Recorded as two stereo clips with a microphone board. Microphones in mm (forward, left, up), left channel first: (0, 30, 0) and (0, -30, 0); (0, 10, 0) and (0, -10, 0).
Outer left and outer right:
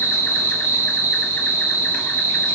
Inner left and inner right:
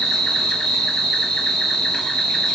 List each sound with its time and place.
0.0 s an insect: 30° left (ahead or behind), 1.8 m